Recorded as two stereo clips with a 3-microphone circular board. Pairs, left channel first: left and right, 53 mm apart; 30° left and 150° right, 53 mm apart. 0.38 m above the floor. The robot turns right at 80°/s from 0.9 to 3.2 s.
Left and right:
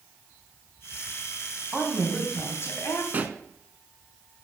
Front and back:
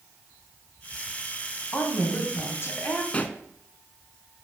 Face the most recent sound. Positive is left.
turn(degrees=-30)